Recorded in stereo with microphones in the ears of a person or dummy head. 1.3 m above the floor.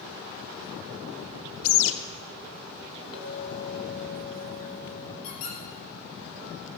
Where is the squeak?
60° left (ahead or behind), 5 m.